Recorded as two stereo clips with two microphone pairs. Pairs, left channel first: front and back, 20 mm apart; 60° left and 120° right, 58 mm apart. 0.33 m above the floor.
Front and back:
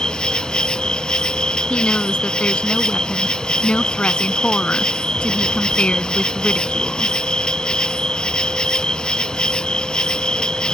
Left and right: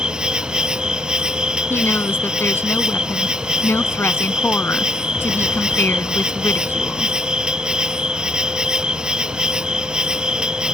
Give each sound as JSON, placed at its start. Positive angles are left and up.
{"t": 0.0, "sound": "an insect", "azimuth_deg": -45}
{"t": 1.7, "sound": "a woman speaking", "azimuth_deg": 15}